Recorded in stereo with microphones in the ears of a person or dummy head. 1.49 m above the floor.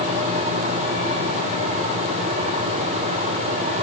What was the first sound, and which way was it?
Only background noise.